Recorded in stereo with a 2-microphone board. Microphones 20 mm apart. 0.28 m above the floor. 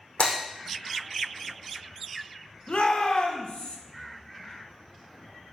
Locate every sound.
0.2 s breaking glass: 70° left (ahead or behind), 6 m
2.7 s a shout: 55° left (ahead or behind), 2.5 m